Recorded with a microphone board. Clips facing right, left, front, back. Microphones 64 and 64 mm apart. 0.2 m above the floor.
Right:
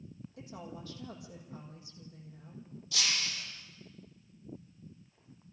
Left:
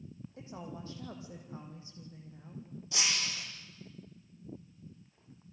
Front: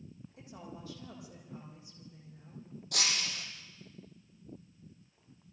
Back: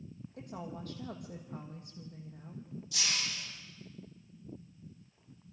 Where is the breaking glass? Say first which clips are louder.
Even, front 2 dB; 25° left, 6 m.